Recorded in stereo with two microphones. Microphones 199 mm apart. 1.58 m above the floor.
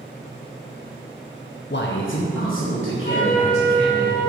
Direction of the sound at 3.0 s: 40° left (ahead or behind).